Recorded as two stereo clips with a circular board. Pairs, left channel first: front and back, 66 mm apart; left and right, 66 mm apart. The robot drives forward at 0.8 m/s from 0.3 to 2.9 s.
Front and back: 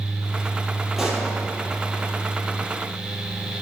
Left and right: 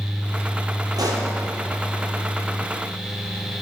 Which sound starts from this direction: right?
A pop, at 1.0 s.